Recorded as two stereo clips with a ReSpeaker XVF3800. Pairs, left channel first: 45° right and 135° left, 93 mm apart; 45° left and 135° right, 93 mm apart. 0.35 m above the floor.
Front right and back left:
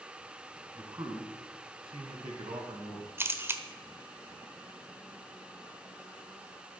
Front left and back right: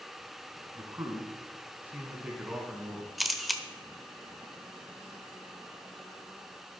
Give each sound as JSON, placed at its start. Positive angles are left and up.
{"t": 0.8, "sound": "a man speaking", "azimuth_deg": 175, "distance_m": 2.5}
{"t": 3.2, "sound": "a camera shutter", "azimuth_deg": 135, "distance_m": 1.1}